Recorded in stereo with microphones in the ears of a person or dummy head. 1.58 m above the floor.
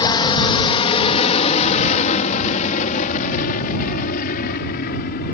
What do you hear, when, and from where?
0.0 s an aircraft: 25° left (ahead or behind); by 5.3 s 55° left (ahead or behind)